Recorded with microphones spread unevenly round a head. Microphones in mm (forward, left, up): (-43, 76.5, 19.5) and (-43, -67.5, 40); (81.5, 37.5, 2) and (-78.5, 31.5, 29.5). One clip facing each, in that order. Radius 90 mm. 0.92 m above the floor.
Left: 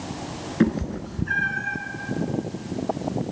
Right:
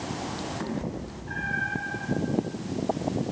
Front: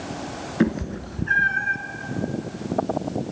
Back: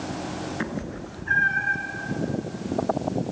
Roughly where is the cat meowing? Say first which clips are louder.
Left 14 dB, front 8 dB; ahead left.